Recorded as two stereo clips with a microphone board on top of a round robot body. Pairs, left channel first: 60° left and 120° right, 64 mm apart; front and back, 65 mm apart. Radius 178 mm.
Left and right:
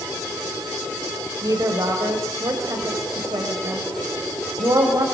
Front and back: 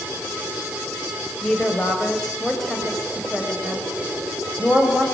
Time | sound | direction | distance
1.4 | a woman speaking | 85° right | 5 m